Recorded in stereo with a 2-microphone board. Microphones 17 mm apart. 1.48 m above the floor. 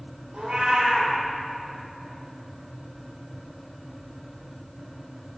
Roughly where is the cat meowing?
Right.